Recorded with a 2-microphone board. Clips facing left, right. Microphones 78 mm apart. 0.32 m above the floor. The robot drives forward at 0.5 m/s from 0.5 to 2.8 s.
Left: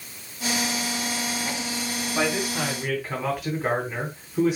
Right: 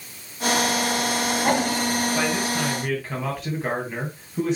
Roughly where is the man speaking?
Centre.